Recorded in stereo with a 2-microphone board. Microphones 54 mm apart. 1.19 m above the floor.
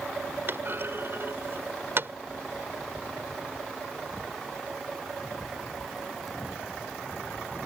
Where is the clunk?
45° right (ahead or behind).